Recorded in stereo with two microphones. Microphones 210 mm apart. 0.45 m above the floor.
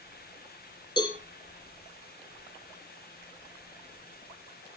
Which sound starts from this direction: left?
A cowbell, at 1.0 s.